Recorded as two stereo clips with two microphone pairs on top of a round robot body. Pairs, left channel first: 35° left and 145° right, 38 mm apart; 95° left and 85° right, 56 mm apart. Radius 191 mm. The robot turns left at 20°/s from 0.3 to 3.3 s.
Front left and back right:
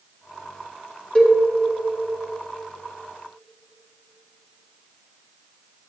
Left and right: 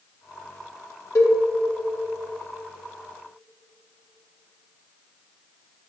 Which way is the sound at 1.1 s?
100° left.